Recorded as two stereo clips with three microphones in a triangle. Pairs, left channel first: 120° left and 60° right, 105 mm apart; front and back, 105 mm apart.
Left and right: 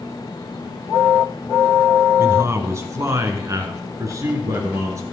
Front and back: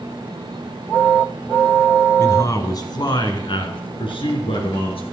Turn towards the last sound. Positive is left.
turn(degrees=-5)